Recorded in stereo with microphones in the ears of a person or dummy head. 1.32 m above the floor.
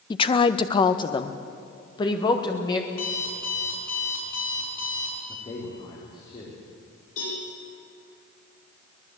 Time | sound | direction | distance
0.1 | a woman speaking | 25° left (ahead or behind) | 0.6 m
2.9 | an alarm clock | 60° left (ahead or behind) | 6.5 m
5.3 | a man speaking | 30° left (ahead or behind) | 3.5 m
7.2 | a cowbell | 50° left (ahead or behind) | 10 m